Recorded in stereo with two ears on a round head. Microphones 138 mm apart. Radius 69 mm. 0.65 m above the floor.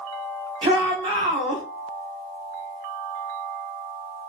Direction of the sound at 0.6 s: 30° right (ahead or behind).